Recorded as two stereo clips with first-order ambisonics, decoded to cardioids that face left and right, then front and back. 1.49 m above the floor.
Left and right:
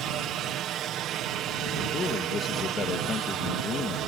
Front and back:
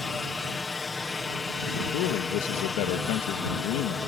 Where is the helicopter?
70° right.